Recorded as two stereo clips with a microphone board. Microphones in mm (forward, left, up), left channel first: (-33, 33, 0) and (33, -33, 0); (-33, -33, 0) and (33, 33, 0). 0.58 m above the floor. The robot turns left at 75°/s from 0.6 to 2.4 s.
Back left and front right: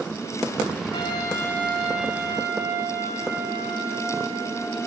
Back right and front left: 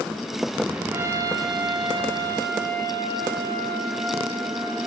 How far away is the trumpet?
About 2 m.